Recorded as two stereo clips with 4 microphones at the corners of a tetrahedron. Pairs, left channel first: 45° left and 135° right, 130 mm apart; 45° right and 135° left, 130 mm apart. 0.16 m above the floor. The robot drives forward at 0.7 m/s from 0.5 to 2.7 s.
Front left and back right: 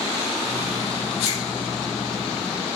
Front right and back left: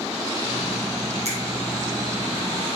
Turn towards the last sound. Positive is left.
turn(degrees=160)